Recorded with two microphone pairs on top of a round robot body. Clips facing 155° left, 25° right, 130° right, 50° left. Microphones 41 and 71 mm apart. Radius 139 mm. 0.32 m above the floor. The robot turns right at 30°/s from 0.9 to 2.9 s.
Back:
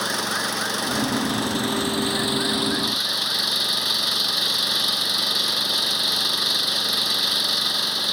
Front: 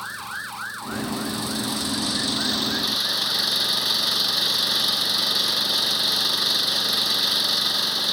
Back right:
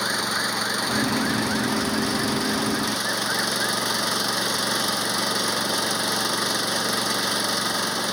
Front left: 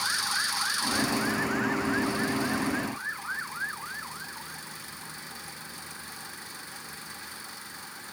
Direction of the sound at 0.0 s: 175° right.